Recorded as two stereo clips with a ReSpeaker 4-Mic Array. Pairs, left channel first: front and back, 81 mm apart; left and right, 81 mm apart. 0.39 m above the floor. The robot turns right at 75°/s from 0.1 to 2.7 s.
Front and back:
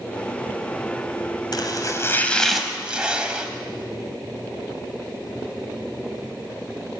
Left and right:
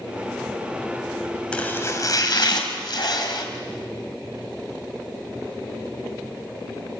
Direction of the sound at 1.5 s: 15° left.